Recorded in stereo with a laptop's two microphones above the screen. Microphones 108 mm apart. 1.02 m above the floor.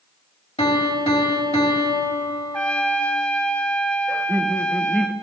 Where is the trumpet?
10° left (ahead or behind), 0.8 m.